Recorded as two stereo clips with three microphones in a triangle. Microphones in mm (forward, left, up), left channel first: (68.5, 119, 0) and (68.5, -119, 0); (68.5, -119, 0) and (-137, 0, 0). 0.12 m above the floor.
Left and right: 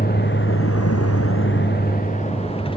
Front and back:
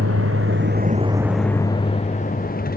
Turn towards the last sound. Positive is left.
turn(degrees=20)